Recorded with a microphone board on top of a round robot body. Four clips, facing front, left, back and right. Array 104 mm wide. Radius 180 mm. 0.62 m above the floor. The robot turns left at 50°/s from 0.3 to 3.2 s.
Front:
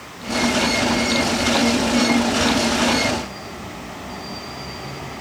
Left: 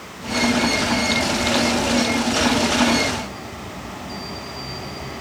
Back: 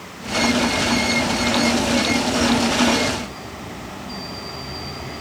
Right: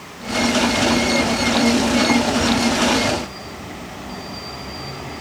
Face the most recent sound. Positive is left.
No sound to turn to.